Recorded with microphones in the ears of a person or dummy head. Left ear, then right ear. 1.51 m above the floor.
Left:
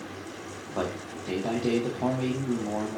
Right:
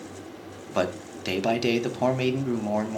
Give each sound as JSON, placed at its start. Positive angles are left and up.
{"t": 0.7, "sound": "a man speaking", "side_deg": -70, "distance_m": 0.7}